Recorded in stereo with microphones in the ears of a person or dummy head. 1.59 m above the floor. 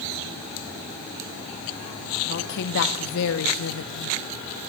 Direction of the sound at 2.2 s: 60° left (ahead or behind).